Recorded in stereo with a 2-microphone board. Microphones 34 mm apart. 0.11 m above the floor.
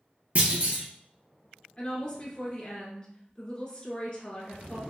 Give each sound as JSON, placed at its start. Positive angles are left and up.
{"t": 0.3, "sound": "a clunk", "side_deg": -40, "distance_m": 1.0}
{"t": 1.8, "sound": "a woman speaking", "side_deg": 30, "distance_m": 1.4}